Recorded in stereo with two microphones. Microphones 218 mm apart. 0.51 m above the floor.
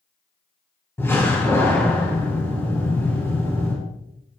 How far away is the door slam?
About 9 m.